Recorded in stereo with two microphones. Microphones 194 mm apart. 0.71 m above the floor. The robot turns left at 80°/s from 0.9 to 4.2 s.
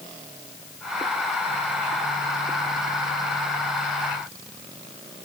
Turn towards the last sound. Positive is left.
No sound to turn to.